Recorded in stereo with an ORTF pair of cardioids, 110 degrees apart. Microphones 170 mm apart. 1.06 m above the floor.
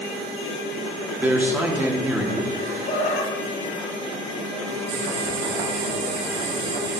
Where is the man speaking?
10° right, 1.7 m.